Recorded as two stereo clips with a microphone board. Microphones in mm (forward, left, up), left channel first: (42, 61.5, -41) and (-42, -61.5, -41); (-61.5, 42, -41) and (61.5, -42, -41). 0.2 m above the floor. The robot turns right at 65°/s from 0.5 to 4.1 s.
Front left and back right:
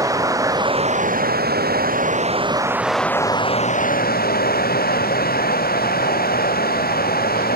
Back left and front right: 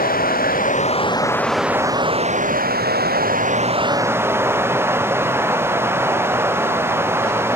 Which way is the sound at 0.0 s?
165° left.